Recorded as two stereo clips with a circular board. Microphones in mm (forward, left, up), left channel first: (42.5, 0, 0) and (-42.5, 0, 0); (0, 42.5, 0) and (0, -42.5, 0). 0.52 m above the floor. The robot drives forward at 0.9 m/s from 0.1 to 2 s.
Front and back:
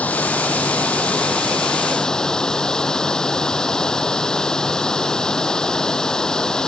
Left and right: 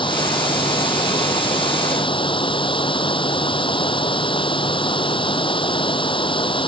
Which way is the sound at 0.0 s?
75° left.